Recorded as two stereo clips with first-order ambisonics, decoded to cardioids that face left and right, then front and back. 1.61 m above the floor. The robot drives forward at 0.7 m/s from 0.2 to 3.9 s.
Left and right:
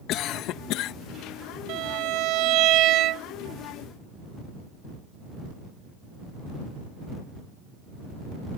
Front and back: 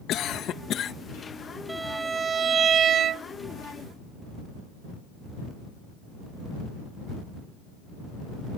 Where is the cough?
50° left; by 0.9 s 60° left.